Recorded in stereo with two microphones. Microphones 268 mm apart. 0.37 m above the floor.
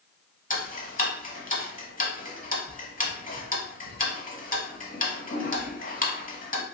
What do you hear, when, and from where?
0.5 s ticking: 30° left (ahead or behind), 0.6 m